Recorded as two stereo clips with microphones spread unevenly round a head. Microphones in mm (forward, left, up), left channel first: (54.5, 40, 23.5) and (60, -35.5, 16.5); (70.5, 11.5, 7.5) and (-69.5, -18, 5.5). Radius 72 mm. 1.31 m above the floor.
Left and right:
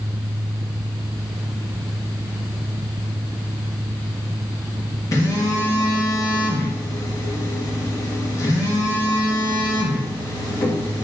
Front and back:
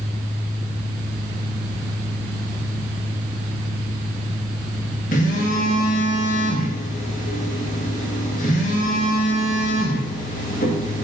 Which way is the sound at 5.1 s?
50° left.